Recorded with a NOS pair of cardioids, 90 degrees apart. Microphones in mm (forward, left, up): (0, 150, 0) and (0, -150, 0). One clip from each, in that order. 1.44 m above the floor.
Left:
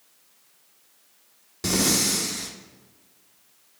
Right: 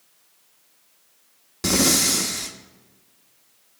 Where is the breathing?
20° right, 0.7 m.